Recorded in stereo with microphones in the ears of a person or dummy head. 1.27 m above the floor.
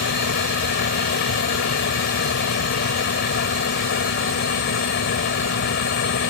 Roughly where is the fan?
Left.